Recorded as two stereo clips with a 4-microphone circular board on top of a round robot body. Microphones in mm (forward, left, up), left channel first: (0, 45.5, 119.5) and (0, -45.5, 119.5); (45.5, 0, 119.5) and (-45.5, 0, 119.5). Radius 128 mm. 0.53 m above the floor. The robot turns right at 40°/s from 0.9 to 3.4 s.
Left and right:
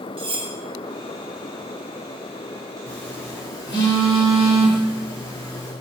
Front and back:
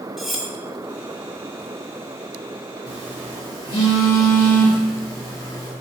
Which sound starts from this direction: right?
Cutlery clinking, at 0.2 s.